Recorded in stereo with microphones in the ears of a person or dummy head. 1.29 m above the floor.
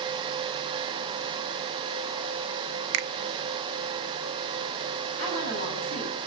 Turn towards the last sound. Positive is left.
turn(degrees=-50)  # may be behind; listen again after turning